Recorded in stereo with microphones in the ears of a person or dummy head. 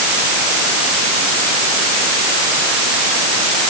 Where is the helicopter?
No helicopter in this recording.